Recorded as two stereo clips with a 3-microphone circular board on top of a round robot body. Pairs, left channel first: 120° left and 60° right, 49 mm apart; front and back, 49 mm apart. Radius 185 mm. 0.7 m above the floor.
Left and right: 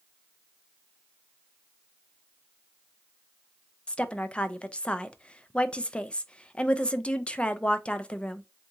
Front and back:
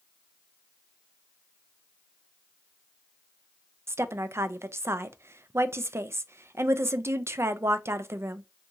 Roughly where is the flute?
I don't hear a flute.